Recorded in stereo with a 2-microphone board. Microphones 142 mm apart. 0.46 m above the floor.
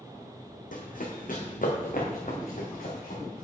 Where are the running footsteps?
70° left (ahead or behind), 1.3 m.